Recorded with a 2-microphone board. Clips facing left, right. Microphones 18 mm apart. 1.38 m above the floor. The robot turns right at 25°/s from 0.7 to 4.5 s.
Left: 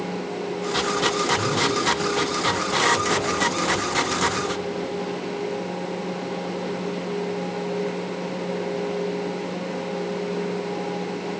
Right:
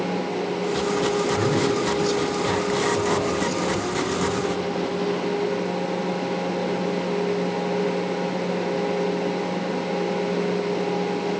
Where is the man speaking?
70° right, 4.5 m; by 4.5 s 10° left, 4.5 m.